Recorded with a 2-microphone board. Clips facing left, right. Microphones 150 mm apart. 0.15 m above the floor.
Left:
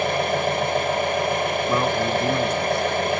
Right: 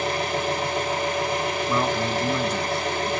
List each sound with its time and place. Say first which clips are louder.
0.0 s an engine running: left 4 dB; 60° left (ahead or behind), 1.5 m
1.7 s a man speaking: left 2 dB; 20° left (ahead or behind), 2 m